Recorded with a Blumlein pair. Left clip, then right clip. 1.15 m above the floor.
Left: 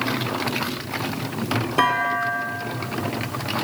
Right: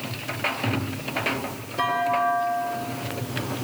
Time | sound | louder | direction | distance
1.8 | a clunk | left 1 dB | 35° left | 2.5 m